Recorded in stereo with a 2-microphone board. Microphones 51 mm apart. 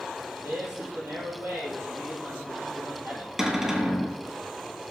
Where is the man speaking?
65° right (ahead or behind), 3.5 m.